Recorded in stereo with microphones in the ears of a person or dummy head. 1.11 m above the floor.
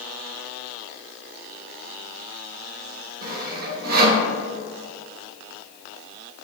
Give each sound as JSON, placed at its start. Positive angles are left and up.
{"t": 3.2, "sound": "sawing", "side_deg": -55, "distance_m": 1.1}